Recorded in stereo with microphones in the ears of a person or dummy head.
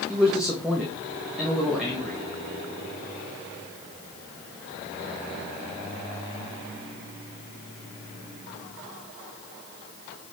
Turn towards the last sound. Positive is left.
turn(degrees=0)  # may be behind; listen again after turning